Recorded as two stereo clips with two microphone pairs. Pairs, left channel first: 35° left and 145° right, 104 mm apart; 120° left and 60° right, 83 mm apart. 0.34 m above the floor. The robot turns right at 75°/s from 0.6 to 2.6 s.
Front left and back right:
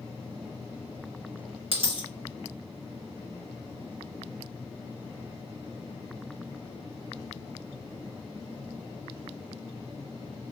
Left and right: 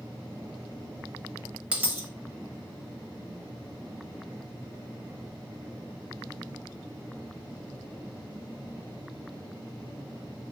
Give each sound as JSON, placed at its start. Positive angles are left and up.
{"t": 1.7, "sound": "a dropped coin", "azimuth_deg": -135, "distance_m": 0.6}